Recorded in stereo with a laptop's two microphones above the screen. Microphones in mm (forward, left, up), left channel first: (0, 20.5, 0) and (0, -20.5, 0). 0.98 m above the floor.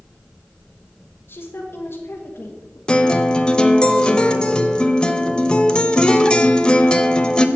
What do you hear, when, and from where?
1.3 s a woman speaking: 70° left (ahead or behind), 1.3 m
2.9 s a guitar: 20° left (ahead or behind), 0.8 m